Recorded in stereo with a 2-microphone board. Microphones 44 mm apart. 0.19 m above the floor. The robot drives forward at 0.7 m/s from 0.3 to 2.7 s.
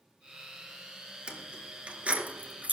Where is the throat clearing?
No throat clearing in this recording.